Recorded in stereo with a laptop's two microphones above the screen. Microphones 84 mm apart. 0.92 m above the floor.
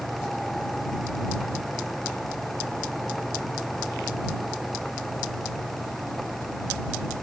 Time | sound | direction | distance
0.0 | a fan | centre (ahead or behind) | ?